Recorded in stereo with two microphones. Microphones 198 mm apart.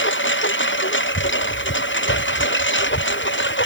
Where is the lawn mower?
75° left (ahead or behind); by 3.7 s 70° left (ahead or behind).